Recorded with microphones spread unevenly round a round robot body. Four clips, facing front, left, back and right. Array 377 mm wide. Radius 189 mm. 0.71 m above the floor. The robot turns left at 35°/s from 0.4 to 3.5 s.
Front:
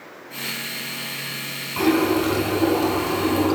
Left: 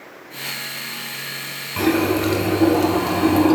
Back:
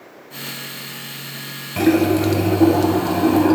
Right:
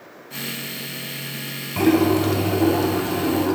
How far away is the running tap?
About 3 m.